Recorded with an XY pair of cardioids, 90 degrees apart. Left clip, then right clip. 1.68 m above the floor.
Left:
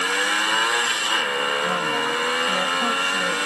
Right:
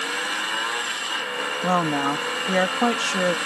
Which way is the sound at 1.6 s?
65° right.